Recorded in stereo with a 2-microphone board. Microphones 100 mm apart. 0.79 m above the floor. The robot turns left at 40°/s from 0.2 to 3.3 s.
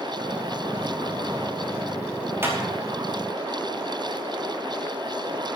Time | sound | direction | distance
2.4 | a clap | 25° right (ahead or behind) | 5 m